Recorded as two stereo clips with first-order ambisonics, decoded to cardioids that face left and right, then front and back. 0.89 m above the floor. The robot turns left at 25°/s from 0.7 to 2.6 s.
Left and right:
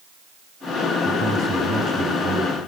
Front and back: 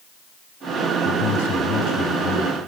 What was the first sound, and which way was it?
A man speaking, 15° right.